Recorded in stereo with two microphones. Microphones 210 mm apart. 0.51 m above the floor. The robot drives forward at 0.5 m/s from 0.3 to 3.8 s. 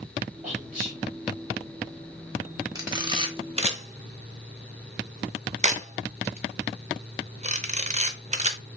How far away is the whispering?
About 2 m.